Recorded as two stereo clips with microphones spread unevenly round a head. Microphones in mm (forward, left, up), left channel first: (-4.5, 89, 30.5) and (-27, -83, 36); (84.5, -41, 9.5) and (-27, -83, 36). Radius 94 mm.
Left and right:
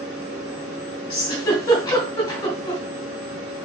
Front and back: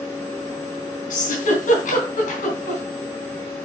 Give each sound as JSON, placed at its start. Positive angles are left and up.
{"t": 1.1, "sound": "a giggle", "azimuth_deg": 5, "distance_m": 3.0}